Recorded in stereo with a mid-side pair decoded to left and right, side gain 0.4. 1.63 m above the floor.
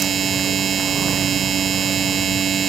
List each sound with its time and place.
0.0 s a machine running: 55° right